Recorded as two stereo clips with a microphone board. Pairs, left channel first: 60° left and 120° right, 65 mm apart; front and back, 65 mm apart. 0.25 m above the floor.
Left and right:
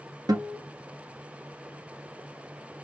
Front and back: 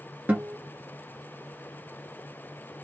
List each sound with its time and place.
0.3 s a guitar: 115° right, 1.3 m